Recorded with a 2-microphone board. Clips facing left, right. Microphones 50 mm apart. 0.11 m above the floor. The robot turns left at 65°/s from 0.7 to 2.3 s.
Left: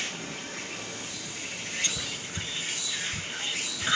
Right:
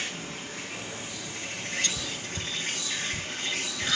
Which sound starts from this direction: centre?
Whispering, at 1.8 s.